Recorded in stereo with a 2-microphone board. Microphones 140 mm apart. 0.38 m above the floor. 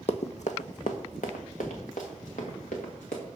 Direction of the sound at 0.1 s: 55° left (ahead or behind).